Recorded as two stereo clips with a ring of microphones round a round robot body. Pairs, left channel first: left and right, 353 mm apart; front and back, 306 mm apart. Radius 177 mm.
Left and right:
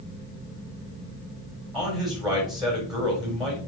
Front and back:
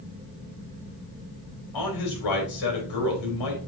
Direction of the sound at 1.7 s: Straight ahead.